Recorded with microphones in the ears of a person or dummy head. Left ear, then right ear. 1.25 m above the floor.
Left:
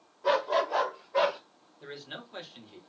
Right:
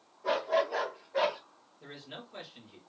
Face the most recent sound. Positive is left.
turn(degrees=40)  # may be behind; listen again after turning